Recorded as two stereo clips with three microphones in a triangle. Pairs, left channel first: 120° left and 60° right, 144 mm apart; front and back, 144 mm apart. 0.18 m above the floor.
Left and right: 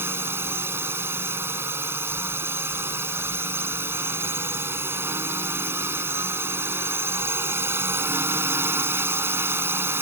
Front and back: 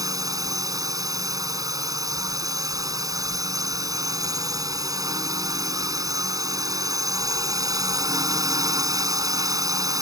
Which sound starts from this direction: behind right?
A drone, at 0.0 s.